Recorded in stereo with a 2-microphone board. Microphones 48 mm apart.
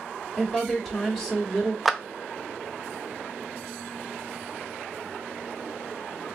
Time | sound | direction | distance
0.4 | a woman speaking | 5° left (ahead or behind) | 1.0 m
1.9 | a clap | centre (ahead or behind) | 0.5 m